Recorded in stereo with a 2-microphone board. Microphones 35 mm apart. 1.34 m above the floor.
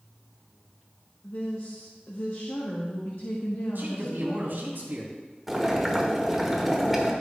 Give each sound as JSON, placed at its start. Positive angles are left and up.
{"t": 1.2, "sound": "a woman speaking", "side_deg": 80, "distance_m": 1.1}
{"t": 3.8, "sound": "a man speaking", "side_deg": -75, "distance_m": 3.5}
{"t": 5.5, "sound": "boiling", "side_deg": -5, "distance_m": 1.1}